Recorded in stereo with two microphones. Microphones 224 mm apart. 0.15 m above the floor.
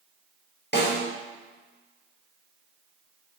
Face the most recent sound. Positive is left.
turn(degrees=50)  # may be behind; listen again after turning